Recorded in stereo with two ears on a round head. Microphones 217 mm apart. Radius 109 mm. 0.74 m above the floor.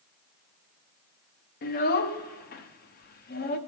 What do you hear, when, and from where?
1.6 s a child speaking: 40° left (ahead or behind), 0.6 m